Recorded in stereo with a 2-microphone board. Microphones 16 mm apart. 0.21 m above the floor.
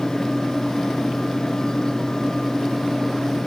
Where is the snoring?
No snoring in this recording.